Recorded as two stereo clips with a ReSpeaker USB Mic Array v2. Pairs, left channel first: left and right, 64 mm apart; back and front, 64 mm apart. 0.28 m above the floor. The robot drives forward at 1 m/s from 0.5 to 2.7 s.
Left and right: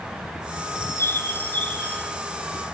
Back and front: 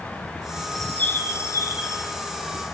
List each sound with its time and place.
0.8 s a bird: 95° left, 0.6 m; by 2.1 s 160° left, 1.5 m